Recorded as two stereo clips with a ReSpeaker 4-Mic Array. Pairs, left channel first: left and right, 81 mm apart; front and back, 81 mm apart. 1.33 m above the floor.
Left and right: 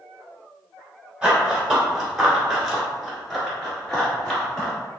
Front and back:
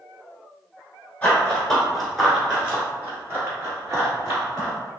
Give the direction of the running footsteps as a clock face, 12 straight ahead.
1 o'clock.